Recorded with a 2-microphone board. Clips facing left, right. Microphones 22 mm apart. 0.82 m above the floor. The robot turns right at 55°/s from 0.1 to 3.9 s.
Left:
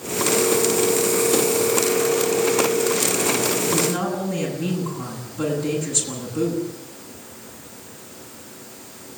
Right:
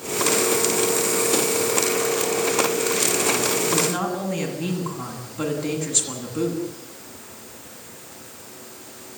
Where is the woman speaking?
10° right (ahead or behind), 9.5 m; by 6.6 s 25° right (ahead or behind), 9.5 m.